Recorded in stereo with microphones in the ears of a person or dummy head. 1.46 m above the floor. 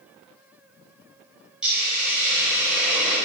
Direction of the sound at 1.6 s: Centre (ahead or behind).